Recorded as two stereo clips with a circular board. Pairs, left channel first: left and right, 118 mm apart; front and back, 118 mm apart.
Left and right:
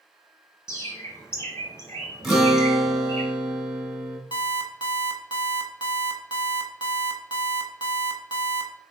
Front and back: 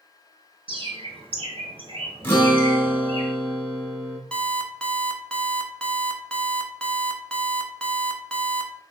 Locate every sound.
0.7 s a bird: 150° left, 0.8 m
2.2 s a guitar: 5° right, 1.3 m
4.3 s an alarm clock: 80° left, 0.6 m